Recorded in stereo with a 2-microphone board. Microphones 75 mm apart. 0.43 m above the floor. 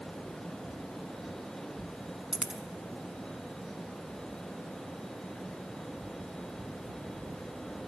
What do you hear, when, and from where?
2.3 s a dropped coin: 5° right (ahead or behind), 0.8 m